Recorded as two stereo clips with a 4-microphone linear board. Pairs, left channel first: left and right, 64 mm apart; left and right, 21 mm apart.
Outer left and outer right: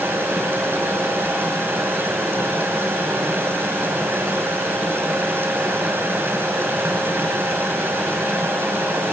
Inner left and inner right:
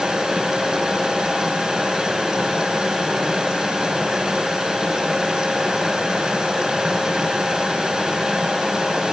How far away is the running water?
About 5.5 m.